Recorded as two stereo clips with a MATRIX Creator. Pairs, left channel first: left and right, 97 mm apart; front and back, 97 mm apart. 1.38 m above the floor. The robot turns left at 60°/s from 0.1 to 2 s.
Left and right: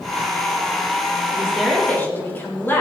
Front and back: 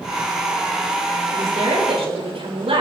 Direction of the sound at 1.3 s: 160° right.